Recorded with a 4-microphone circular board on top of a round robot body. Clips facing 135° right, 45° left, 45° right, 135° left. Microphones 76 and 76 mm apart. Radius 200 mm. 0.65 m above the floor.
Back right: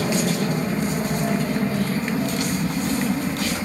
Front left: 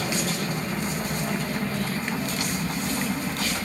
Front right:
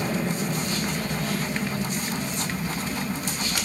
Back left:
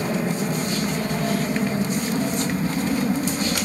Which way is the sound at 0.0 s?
170° right.